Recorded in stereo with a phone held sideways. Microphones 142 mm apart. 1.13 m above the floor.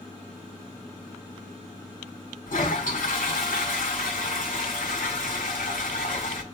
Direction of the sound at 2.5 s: 80° left.